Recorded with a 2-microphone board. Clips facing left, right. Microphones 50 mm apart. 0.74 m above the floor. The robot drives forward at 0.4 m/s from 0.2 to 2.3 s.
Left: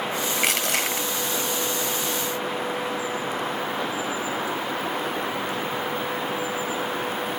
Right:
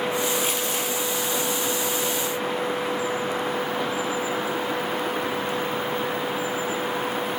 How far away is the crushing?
About 1.8 m.